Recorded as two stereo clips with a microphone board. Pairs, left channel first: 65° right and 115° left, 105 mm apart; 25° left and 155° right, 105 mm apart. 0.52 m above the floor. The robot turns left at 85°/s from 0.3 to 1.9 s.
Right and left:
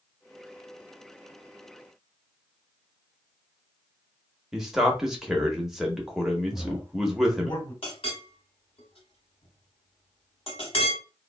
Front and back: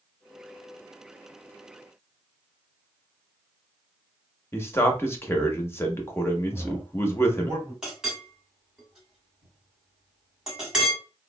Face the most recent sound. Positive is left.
turn(degrees=-75)